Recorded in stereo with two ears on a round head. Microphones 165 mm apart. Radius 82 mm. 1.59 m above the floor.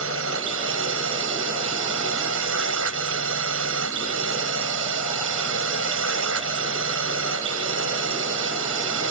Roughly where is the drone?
Right.